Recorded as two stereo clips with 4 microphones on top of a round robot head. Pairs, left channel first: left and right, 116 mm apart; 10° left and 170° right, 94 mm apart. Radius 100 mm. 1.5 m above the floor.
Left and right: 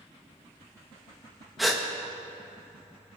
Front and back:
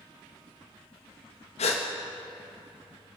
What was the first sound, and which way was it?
A gasp, straight ahead.